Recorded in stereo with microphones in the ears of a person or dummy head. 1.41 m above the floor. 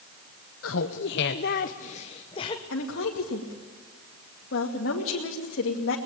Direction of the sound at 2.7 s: 80° left.